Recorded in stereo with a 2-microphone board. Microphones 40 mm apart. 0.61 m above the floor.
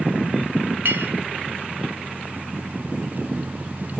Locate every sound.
0.8 s a clink: 70° right (ahead or behind), 1.3 m